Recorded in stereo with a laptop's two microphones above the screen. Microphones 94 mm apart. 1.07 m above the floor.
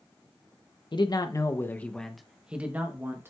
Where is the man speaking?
55° left (ahead or behind), 0.7 m; by 3.3 s 30° right (ahead or behind), 1.1 m.